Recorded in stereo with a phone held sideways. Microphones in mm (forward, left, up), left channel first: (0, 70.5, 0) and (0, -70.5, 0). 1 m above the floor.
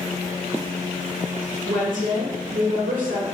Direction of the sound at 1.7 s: 65° right (ahead or behind).